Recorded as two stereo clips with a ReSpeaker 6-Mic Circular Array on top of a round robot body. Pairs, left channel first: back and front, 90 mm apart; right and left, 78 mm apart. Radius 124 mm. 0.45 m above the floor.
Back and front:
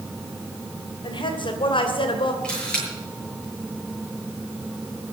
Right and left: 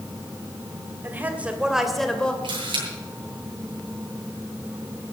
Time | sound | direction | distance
1.0 | a woman speaking | 150° left | 3 m
2.4 | a camera shutter | 100° left | 7.5 m